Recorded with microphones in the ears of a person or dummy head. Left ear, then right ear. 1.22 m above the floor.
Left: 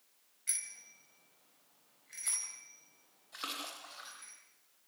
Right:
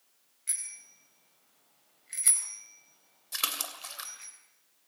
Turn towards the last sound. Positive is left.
turn(degrees=-80)